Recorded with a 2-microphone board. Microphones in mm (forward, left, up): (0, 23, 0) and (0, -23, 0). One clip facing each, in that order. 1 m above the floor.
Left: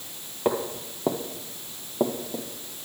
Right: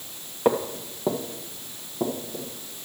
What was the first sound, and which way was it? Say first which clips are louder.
Footsteps: right 3 dB; 10° right (ahead or behind).